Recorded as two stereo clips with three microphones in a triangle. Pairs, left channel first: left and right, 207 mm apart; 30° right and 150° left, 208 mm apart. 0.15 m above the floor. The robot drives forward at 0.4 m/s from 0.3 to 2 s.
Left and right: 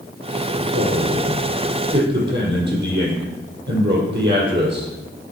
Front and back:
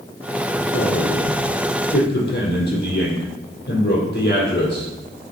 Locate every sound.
0.6 s a man speaking: 55° right, 4.5 m; by 4.9 s 60° right, 4 m